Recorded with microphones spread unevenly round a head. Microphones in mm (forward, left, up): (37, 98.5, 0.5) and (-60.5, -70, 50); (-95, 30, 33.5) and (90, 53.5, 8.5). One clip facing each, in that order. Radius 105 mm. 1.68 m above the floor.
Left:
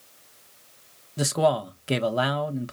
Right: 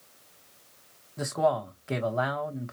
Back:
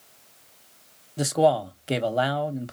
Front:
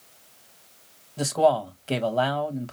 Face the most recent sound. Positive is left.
turn(degrees=110)